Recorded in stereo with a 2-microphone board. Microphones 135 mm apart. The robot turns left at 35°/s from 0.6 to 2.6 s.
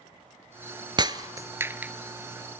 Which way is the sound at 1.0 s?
35° right (ahead or behind).